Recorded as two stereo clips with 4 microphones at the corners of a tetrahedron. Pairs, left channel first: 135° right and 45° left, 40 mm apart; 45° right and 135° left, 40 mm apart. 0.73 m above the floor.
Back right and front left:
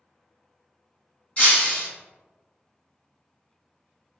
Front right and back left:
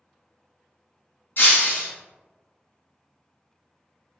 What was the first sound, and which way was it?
Breaking glass, 80° right.